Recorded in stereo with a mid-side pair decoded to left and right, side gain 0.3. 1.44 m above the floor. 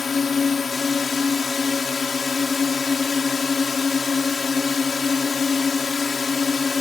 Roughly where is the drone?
Ahead left.